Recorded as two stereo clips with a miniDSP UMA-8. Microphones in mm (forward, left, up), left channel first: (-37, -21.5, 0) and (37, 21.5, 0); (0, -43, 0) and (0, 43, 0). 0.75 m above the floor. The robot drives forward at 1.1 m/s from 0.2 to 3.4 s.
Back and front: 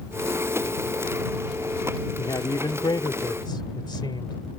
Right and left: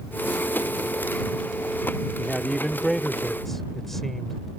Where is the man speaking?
170° right; by 4.4 s 175° right.